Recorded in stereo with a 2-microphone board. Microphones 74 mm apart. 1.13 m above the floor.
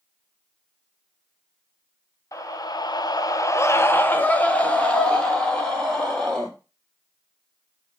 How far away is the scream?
About 0.6 m.